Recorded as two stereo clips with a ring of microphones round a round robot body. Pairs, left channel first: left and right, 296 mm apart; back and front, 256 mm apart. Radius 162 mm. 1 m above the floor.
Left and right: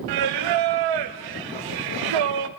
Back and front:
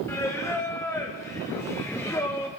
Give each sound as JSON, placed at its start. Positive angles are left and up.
{"t": 0.1, "sound": "singing", "azimuth_deg": -100, "distance_m": 0.6}